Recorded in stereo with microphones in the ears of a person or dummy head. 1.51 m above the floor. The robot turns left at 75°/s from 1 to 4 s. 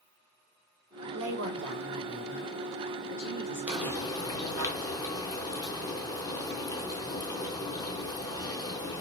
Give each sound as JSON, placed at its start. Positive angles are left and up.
{"t": 1.1, "sound": "a woman speaking", "azimuth_deg": -105, "distance_m": 1.4}
{"t": 3.7, "sound": "frying", "side_deg": -5, "distance_m": 0.7}